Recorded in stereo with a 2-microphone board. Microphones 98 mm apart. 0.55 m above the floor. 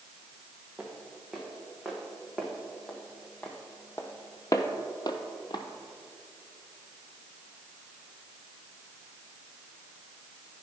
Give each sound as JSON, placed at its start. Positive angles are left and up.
{"t": 0.8, "sound": "footsteps", "side_deg": -10, "distance_m": 2.0}